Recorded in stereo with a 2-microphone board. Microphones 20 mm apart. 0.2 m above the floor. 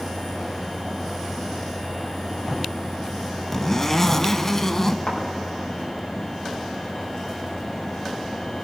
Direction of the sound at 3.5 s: 20° left (ahead or behind).